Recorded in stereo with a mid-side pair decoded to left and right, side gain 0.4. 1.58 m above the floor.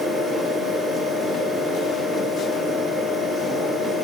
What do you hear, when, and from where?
0.0 s a fan: 60° right, 4 m